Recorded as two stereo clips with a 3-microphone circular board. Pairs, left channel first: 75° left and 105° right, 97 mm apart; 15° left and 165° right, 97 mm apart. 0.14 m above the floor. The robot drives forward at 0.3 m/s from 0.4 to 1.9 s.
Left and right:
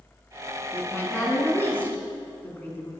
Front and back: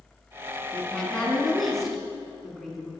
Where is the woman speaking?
65° left, 1.1 m; by 2.9 s 115° left, 1.1 m.